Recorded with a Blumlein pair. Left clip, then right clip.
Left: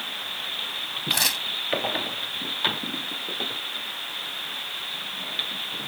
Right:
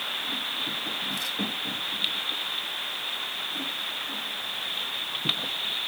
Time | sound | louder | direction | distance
1.1 | tearing paper | left 6 dB | 55° left | ?